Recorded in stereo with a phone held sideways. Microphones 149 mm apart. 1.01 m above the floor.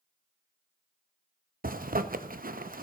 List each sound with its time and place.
1.6 s a zipper: 75° right (ahead or behind), 0.7 m